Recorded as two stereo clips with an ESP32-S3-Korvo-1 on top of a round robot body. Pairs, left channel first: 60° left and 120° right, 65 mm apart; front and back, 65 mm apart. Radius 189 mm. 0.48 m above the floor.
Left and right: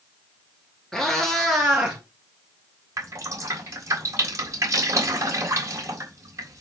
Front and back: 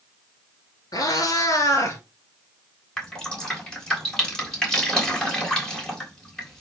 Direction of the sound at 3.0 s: 80° right.